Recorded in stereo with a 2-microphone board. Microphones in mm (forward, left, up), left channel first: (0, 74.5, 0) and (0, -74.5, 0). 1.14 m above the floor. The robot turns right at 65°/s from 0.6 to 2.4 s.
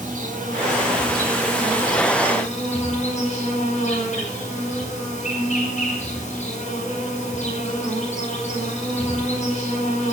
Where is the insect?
65° right, 5.5 m; by 10.1 s 55° left, 5.5 m.